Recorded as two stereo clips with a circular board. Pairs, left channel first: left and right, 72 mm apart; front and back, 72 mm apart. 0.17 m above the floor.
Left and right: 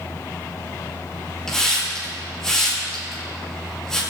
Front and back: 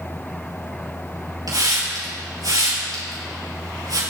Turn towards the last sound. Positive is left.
turn(degrees=175)